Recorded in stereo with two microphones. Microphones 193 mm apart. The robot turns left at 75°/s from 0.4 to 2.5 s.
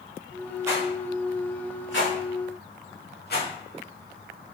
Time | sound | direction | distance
0.7 | a rattle | 15° right (ahead or behind) | 2 m